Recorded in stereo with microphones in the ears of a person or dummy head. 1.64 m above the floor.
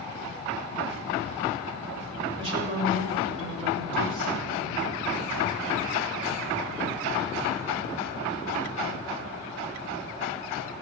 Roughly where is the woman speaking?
Right.